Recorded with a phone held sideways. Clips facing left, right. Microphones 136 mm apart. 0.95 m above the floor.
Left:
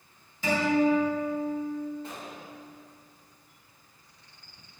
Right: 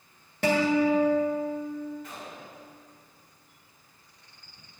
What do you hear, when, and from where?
0.4 s a guitar: 70° right (ahead or behind), 1.7 m
2.0 s a gunshot: 30° left (ahead or behind), 2.5 m